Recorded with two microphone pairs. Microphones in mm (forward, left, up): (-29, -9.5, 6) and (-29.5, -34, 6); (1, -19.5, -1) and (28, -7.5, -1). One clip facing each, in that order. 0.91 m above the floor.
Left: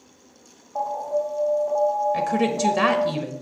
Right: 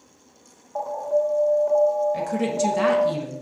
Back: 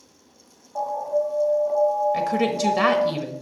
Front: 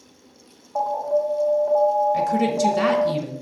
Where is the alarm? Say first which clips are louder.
Right 2 dB, front 2 dB; 45° right, 2.5 m.